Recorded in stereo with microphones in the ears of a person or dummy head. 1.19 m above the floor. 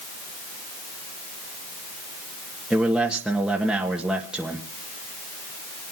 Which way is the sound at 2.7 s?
5° right (ahead or behind).